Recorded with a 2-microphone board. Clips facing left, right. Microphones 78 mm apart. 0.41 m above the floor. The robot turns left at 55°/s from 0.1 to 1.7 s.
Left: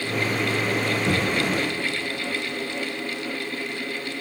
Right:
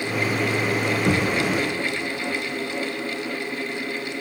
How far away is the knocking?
About 3 m.